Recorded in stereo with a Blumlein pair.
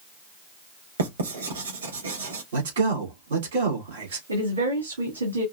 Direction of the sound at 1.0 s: 65° right.